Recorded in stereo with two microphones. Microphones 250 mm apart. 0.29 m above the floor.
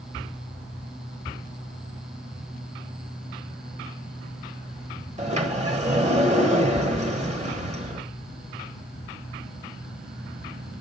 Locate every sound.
5.2 s a sliding door: 25° right (ahead or behind), 1.1 m